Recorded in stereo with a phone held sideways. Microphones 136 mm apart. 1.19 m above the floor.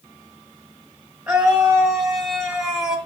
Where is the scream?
5° right (ahead or behind), 6.5 m.